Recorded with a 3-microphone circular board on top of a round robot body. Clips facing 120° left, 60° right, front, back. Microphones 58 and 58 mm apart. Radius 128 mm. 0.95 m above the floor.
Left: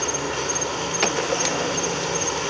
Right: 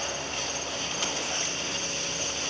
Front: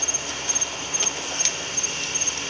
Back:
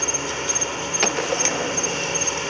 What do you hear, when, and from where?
0.0 s an insect: 115° left
1.0 s a gunshot: 145° left